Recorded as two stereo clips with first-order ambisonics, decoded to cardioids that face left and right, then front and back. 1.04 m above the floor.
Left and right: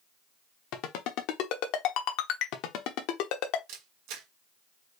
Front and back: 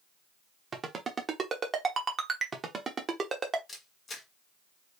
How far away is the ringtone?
About 1.0 m.